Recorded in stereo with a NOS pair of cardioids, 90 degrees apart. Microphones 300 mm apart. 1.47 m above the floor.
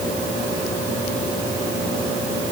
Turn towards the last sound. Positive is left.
No sound to turn to.